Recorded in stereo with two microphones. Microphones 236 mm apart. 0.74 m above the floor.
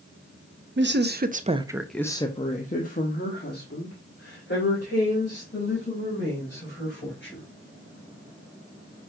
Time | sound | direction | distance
0.8 | a woman speaking | 50° right (ahead or behind) | 0.8 m